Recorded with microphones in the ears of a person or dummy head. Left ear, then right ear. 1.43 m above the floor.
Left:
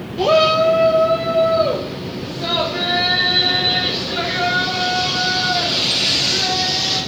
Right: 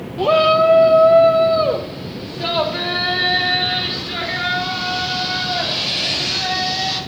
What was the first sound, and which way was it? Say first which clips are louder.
A shout: even; centre (ahead or behind).